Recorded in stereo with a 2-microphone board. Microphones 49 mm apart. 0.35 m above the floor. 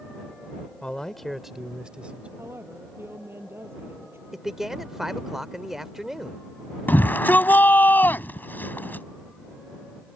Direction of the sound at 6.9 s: 40° left (ahead or behind).